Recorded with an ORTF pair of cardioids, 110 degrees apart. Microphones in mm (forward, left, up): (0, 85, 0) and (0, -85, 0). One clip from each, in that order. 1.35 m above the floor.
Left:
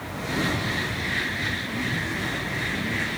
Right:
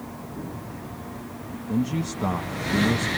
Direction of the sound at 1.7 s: 65° right.